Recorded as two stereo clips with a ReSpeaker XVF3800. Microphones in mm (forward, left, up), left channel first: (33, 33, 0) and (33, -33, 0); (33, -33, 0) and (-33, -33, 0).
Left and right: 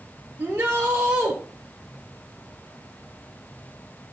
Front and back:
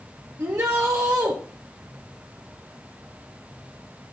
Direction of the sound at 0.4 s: 155° right.